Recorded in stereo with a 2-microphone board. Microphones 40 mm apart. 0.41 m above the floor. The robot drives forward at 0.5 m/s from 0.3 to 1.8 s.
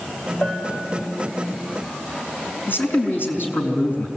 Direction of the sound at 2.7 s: 60° left (ahead or behind).